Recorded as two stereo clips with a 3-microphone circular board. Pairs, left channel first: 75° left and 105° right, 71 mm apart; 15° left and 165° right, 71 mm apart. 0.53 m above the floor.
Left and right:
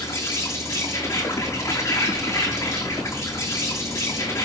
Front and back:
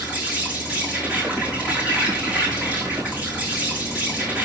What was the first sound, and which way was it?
An insect, 125° left.